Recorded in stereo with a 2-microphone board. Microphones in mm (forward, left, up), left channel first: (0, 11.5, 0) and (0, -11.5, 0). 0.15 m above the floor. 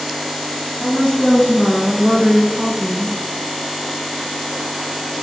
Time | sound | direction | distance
0.8 | a woman speaking | 25° left (ahead or behind) | 3 m